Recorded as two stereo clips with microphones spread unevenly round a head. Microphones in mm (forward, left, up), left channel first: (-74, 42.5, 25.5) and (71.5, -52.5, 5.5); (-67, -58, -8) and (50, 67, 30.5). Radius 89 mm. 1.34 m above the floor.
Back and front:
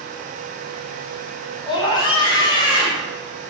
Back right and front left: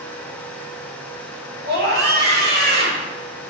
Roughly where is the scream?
Left.